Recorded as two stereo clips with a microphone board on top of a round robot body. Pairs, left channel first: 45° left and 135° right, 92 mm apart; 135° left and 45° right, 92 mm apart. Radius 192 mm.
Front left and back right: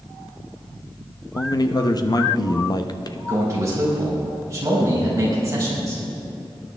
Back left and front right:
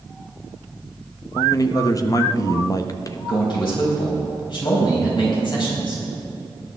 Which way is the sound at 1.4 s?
85° left.